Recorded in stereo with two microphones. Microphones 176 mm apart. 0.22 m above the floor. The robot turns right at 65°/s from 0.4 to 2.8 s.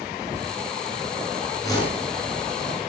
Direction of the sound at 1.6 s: 15° left (ahead or behind).